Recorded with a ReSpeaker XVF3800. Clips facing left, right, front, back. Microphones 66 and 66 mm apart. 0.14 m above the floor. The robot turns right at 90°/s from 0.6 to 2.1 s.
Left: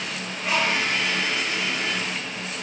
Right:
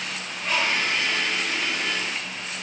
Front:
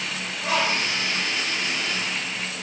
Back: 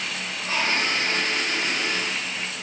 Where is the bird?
5° left, 3 m; by 2.5 s 140° left, 3 m.